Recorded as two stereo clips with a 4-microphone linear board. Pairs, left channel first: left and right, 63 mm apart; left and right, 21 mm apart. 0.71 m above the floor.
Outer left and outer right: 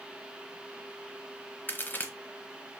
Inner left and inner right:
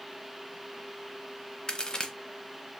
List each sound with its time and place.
1.7 s a crack: 35° left (ahead or behind), 0.7 m